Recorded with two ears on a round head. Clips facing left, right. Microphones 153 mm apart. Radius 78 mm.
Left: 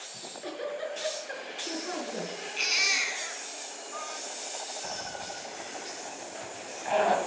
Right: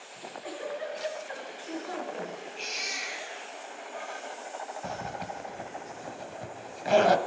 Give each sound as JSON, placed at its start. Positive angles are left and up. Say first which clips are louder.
{"t": 0.1, "sound": "a giggle", "louder": "left 1 dB", "side_deg": 50, "distance_m": 6.5}
{"t": 2.6, "sound": "a baby crying", "louder": "left 2 dB", "side_deg": 80, "distance_m": 4.0}
{"t": 4.8, "sound": "a zipper", "louder": "right 4 dB", "side_deg": -50, "distance_m": 1.6}